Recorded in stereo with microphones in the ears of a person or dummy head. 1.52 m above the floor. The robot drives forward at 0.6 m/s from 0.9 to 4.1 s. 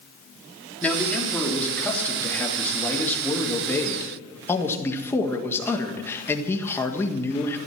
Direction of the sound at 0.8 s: 5° left (ahead or behind).